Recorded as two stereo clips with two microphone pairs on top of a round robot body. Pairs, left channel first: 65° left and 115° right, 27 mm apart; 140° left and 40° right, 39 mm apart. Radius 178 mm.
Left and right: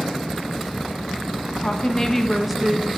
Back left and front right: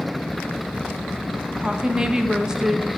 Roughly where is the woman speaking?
Ahead.